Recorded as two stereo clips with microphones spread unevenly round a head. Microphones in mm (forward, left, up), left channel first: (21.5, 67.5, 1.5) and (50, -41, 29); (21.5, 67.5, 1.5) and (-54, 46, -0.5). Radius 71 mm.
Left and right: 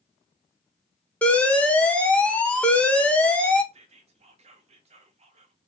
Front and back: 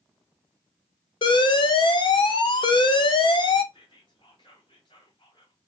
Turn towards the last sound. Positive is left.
turn(degrees=-45)